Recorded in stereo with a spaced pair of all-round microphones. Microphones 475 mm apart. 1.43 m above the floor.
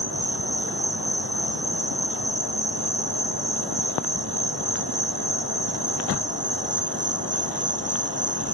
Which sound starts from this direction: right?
An insect, at 0.0 s.